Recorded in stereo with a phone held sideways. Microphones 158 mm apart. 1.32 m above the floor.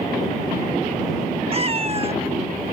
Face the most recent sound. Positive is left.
turn(degrees=-40)  # may be behind; listen again after turning